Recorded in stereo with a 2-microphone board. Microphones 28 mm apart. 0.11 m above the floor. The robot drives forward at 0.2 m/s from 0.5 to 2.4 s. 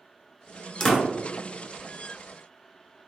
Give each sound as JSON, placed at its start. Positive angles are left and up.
{"t": 0.8, "sound": "a door slam", "side_deg": 20, "distance_m": 1.0}